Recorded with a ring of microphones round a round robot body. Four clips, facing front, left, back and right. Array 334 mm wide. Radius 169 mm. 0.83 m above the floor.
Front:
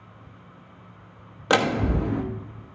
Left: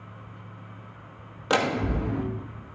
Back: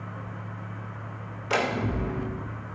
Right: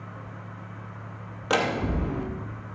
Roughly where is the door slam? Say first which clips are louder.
Left 1 dB, front 5 dB; ahead.